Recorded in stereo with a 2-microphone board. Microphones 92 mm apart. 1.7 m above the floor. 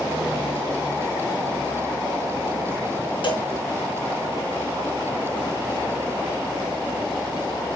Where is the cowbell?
60° left (ahead or behind), 1.6 m.